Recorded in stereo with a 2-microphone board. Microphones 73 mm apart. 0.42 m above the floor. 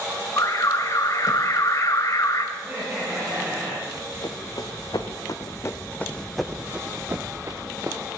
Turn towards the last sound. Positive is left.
turn(degrees=-50)  # may be behind; listen again after turning